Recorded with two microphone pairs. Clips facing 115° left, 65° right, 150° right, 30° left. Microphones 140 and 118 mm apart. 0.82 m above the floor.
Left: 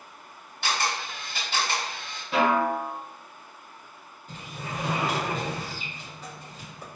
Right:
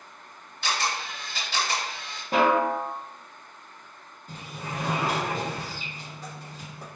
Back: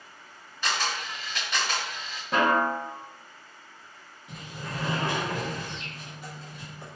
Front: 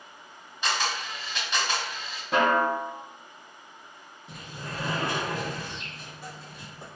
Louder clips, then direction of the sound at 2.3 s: Right 1 dB, front 1 dB; 60° right.